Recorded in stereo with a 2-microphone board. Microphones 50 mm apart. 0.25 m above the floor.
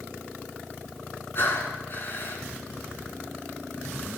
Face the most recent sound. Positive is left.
turn(degrees=45)  # may be behind; listen again after turning